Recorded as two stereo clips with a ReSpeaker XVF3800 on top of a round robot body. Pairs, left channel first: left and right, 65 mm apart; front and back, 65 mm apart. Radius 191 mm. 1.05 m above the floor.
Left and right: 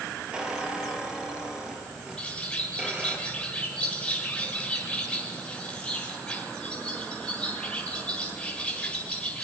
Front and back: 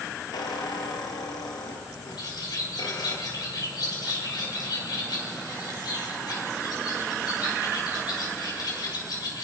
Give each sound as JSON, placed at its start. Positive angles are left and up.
{"t": 0.3, "sound": "a squeak", "azimuth_deg": -15, "distance_m": 1.8}
{"t": 2.2, "sound": "a bird", "azimuth_deg": 15, "distance_m": 4.0}